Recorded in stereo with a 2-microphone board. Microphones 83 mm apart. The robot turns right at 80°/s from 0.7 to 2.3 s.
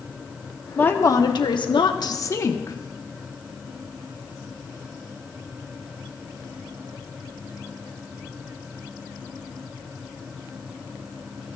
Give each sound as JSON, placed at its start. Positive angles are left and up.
{"t": 0.8, "sound": "a woman speaking", "azimuth_deg": 20, "distance_m": 0.9}